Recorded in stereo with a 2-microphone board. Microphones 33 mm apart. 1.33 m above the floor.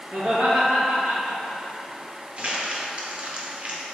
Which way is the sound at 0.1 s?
35° right (ahead or behind).